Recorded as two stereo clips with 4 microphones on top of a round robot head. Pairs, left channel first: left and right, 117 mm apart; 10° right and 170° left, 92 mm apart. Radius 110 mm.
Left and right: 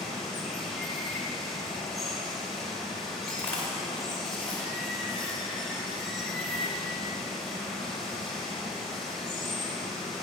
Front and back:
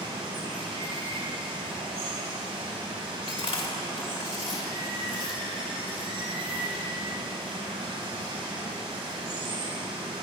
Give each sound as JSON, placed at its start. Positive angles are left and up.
{"t": 0.0, "sound": "running water", "azimuth_deg": 180, "distance_m": 3.5}
{"t": 3.3, "sound": "chewing", "azimuth_deg": 10, "distance_m": 2.5}